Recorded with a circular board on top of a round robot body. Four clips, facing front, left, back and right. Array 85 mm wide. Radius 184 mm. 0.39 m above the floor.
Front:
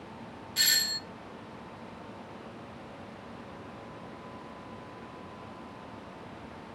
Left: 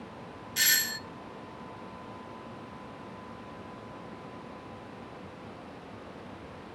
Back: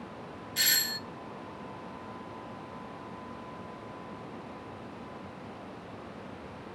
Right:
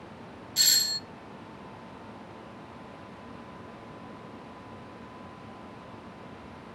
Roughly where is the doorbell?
Left.